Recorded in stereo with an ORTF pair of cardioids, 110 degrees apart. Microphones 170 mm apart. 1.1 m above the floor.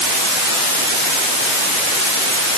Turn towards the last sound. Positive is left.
No sound to turn to.